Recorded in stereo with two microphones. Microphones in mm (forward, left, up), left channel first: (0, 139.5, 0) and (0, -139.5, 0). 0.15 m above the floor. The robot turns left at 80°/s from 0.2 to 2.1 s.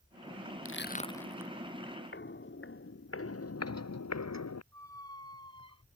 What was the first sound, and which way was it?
Crushing, 55° left (ahead or behind).